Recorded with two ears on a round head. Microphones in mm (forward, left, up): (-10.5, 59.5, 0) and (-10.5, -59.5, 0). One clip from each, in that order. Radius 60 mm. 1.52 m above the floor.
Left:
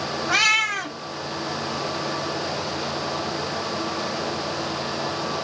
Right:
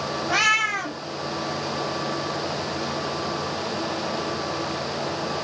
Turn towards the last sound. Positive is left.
turn(degrees=65)  # may be behind; listen again after turning